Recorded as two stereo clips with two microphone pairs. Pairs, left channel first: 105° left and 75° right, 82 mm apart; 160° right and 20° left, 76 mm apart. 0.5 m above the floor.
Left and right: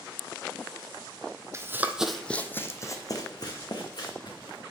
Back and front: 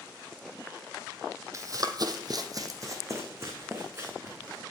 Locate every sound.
1.5 s running footsteps: 20° right, 0.8 m; by 4.6 s 80° left, 2.5 m